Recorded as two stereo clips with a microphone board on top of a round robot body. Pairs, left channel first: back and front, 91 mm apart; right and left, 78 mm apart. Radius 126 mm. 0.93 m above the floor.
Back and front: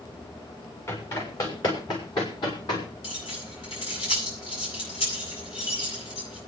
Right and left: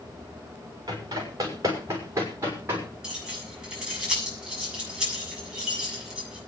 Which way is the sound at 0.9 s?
125° left.